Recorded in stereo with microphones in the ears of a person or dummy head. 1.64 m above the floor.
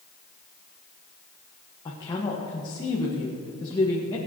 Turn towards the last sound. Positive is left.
turn(degrees=20)  # may be behind; listen again after turning